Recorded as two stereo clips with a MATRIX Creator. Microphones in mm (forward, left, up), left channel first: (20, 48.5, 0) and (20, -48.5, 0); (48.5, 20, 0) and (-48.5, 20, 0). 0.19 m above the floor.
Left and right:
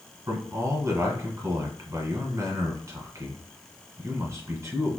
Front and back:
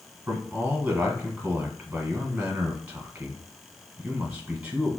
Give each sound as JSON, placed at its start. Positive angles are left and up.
{"t": 0.3, "sound": "a man speaking", "azimuth_deg": -115, "distance_m": 1.3}